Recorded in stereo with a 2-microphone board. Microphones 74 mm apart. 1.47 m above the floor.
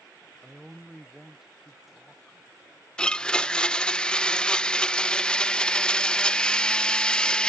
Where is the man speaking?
5° right (ahead or behind).